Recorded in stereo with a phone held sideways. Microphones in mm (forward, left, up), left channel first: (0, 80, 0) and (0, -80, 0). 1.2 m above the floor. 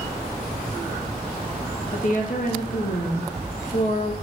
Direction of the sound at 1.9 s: 55° left (ahead or behind).